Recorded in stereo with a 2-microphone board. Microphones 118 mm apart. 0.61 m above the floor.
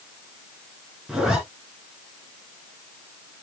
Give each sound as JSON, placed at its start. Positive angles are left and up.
{"t": 1.1, "sound": "a zipper", "side_deg": -5, "distance_m": 3.5}